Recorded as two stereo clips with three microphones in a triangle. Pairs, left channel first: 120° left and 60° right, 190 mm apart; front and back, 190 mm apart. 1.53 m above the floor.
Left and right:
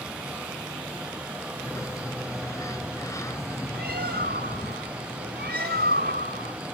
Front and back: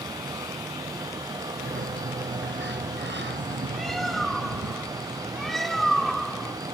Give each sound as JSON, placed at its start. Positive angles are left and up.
{"t": 1.6, "sound": "a sliding door", "azimuth_deg": -165}
{"t": 3.7, "sound": "a bird", "azimuth_deg": -90}